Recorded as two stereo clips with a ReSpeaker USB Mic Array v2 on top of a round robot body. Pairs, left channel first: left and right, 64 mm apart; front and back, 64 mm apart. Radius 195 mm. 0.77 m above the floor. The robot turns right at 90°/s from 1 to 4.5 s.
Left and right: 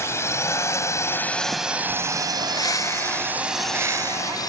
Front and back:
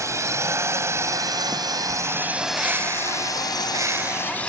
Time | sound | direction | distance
0.0 | a drone | 140° left | ?
2.4 | a bird | 90° left | ?